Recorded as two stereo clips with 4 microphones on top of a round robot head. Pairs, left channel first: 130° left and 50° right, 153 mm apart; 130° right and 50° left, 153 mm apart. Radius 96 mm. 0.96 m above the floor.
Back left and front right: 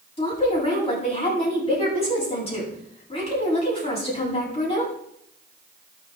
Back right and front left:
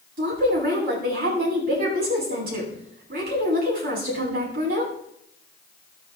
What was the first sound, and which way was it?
A woman speaking, 80° left.